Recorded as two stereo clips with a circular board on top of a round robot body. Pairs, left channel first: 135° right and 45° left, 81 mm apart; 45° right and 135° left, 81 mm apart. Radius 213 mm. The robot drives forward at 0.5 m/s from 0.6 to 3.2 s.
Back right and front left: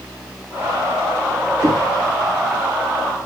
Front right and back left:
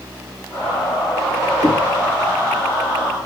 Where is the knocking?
95° left, 3.5 m.